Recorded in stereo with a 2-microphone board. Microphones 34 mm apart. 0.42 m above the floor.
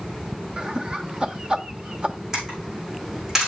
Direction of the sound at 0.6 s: 30° right (ahead or behind).